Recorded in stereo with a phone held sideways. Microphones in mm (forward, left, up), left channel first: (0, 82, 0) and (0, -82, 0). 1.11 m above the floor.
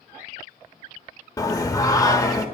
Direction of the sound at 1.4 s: 20° left (ahead or behind).